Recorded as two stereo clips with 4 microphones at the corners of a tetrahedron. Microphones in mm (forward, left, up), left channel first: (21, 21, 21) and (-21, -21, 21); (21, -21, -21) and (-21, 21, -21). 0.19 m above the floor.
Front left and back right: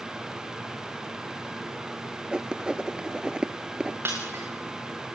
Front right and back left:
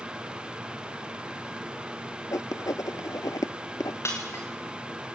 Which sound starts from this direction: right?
Breaking glass, at 4.0 s.